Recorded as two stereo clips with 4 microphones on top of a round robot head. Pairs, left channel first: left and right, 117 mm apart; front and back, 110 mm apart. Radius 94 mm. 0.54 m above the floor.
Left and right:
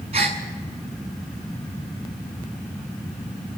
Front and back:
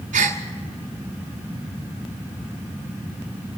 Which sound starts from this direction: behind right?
A gasp, at 0.1 s.